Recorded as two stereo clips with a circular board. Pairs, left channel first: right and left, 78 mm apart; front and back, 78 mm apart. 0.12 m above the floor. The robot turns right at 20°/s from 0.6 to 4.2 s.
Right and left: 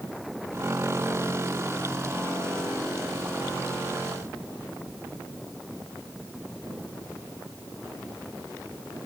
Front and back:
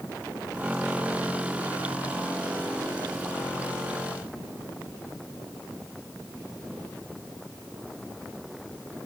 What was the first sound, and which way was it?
Only background noise.